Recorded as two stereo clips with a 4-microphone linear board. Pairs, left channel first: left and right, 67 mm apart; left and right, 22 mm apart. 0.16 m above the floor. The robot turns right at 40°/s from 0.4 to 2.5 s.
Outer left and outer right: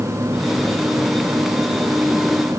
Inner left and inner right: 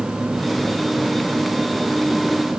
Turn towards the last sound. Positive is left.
No sound to turn to.